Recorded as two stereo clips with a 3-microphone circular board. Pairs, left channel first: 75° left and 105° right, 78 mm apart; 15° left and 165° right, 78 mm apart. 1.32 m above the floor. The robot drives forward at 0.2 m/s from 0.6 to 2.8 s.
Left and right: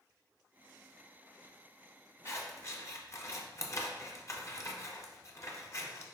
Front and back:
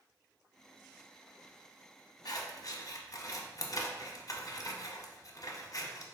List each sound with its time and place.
2.2 s scissors: 30° left, 0.6 m; by 6.0 s 40° left, 0.5 m